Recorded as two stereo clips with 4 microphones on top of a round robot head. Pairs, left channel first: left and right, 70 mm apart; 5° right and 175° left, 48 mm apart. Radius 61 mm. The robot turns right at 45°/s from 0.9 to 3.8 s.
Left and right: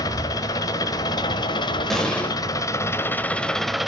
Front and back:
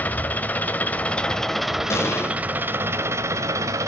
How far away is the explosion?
About 1.6 m.